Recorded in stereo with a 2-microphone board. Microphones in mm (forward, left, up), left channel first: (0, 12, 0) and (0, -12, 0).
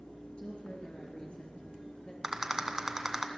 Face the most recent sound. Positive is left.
turn(degrees=-20)  # may be behind; listen again after turning